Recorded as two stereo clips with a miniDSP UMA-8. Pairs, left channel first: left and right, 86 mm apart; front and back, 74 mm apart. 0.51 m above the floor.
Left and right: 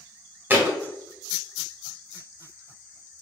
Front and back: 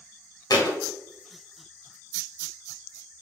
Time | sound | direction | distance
0.5 | a thud | 25° right | 0.7 m